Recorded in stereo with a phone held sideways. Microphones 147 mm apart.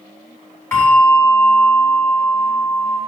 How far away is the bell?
About 5 m.